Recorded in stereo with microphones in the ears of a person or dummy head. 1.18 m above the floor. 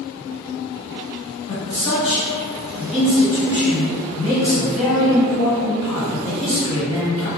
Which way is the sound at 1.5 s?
35° left (ahead or behind).